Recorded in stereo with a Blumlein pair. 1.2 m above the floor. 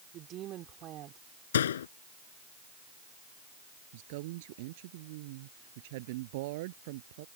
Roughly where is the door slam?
Ahead left.